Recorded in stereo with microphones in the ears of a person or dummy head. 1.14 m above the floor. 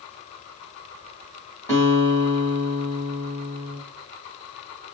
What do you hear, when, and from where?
1.7 s a guitar: 15° left (ahead or behind), 1.2 m